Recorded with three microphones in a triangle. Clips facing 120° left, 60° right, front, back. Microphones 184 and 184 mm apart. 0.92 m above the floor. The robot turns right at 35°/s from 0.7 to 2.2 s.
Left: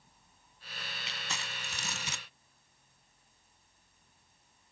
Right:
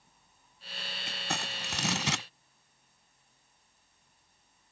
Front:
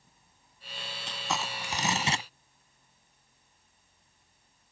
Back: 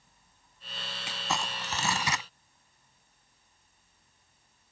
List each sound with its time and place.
1.1 s crumpling: 100° right; by 2.2 s 60° right